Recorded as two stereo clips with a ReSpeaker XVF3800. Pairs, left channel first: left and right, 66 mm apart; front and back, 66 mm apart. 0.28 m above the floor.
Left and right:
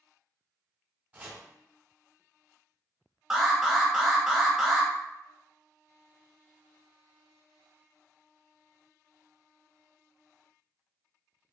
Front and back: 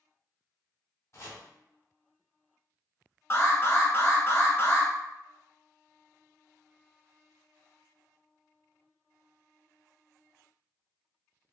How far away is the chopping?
About 1.0 m.